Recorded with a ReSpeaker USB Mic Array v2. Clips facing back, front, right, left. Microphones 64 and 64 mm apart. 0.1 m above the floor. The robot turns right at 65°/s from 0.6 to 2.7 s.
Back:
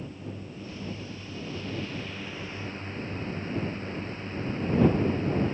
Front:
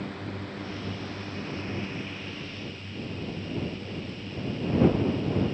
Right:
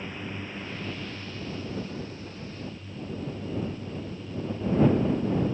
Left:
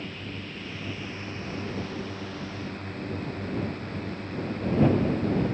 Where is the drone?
15° right; by 5.5 s 125° left.